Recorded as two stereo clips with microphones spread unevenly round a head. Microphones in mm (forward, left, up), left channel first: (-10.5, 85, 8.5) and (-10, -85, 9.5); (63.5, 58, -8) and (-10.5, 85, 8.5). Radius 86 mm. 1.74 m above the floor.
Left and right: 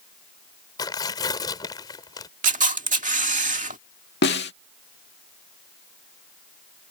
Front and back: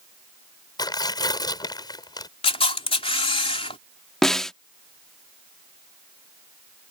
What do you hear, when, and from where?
0.8 s tearing paper: 20° left
2.4 s a camera shutter: 45° right
4.2 s a snare drum: 75° left